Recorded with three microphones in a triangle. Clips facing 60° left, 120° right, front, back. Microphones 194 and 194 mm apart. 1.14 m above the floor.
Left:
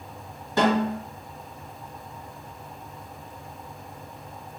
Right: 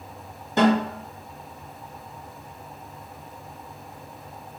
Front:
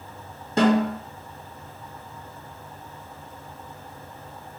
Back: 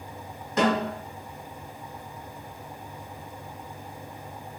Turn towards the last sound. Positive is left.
turn(degrees=-55)